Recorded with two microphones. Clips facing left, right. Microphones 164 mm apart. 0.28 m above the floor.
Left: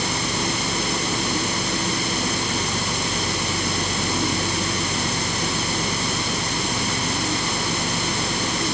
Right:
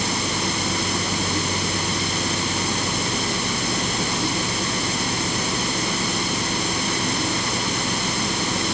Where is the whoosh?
I don't hear a whoosh.